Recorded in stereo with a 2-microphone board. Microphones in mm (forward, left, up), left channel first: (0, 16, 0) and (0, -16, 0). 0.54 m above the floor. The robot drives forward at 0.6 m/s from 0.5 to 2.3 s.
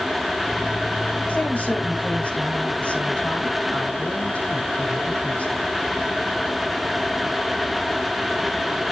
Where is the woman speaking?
55° left (ahead or behind), 4 m; by 5.7 s 45° left (ahead or behind), 4 m.